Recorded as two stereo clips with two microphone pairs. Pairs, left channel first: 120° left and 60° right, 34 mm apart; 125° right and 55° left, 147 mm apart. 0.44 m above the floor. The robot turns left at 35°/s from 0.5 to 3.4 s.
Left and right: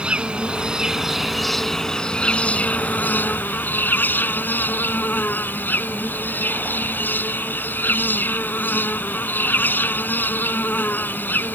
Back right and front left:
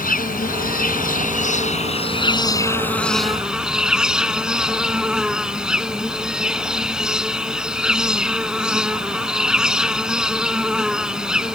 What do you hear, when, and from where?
0.0 s an insect: 120° right; by 11.6 s 140° left